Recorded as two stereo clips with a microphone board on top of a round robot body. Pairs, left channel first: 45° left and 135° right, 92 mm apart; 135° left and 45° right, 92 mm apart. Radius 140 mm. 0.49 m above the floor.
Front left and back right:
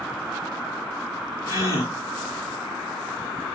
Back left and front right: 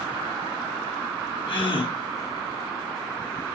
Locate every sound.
1.5 s a gasp: 105° left, 6 m